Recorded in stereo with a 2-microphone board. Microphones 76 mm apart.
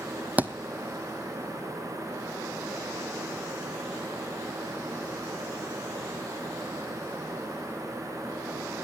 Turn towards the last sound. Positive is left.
turn(degrees=-25)  # may be behind; listen again after turning